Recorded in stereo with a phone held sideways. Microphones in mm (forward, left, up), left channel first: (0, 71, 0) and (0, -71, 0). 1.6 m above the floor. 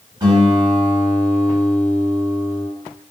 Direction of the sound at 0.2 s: 30° right (ahead or behind).